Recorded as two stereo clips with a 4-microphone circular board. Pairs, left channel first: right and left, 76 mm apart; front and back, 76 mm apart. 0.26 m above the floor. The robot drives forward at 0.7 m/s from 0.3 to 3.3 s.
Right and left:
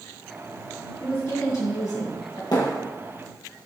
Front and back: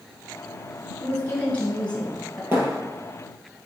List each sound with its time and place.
1.0 s a woman speaking: 55° right, 2.5 m; by 2.4 s 85° right, 2 m
2.5 s a thud: 120° right, 3.5 m